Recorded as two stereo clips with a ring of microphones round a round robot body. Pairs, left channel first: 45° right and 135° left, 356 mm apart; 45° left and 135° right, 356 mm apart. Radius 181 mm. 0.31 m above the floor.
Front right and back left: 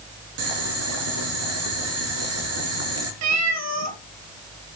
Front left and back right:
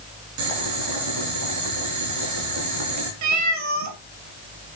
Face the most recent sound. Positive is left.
turn(degrees=180)